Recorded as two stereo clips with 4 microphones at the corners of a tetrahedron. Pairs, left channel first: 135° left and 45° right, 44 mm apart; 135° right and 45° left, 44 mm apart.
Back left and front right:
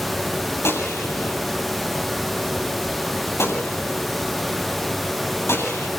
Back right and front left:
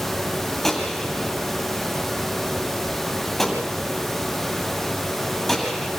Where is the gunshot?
140° left, 8.5 m.